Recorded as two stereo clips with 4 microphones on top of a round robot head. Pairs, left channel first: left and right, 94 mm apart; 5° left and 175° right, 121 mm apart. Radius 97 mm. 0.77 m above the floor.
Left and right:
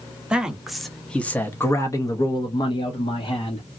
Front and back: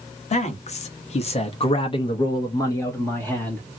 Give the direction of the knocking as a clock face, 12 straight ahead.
I don't hear knocking.